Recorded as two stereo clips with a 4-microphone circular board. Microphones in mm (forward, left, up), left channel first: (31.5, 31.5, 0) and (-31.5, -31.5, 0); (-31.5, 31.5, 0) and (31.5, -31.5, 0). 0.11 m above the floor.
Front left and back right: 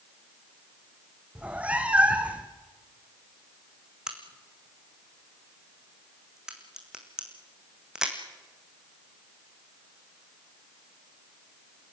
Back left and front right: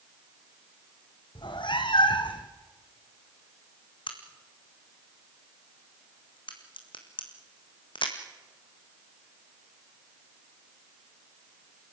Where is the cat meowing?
150° left, 2.5 m.